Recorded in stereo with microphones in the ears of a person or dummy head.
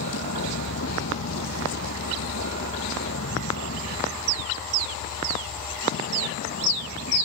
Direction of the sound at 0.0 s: 70° left (ahead or behind).